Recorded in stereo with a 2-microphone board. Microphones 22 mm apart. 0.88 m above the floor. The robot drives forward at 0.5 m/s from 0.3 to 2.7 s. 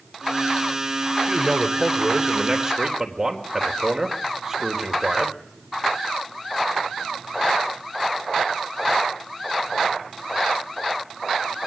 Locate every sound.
1.3 s a man speaking: 25° right (ahead or behind), 3.5 m; by 5.4 s 20° right (ahead or behind), 4 m